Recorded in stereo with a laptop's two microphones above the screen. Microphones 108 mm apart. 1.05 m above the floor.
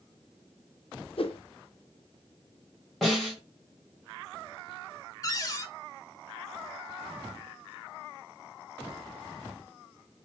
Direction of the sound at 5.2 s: 30° left (ahead or behind).